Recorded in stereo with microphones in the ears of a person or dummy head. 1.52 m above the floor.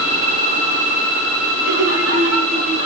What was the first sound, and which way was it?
Laughter, 90° right.